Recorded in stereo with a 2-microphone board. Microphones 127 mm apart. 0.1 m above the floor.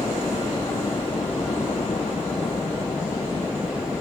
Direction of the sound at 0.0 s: 40° left (ahead or behind).